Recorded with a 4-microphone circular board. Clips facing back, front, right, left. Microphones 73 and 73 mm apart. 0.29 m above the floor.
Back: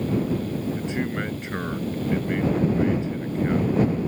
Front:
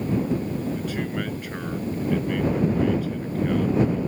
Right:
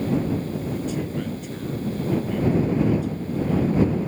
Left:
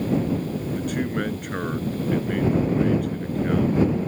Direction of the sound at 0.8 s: 115° left.